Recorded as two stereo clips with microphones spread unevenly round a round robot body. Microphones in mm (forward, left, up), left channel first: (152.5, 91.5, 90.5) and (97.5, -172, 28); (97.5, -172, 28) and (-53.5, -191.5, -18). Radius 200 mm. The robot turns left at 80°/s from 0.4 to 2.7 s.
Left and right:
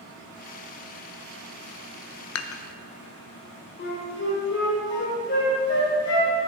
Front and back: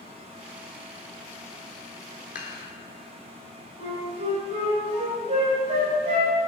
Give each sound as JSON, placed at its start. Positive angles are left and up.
{"t": 2.4, "sound": "dishes clattering", "azimuth_deg": 55, "distance_m": 0.5}
{"t": 3.8, "sound": "a flute", "azimuth_deg": 135, "distance_m": 1.4}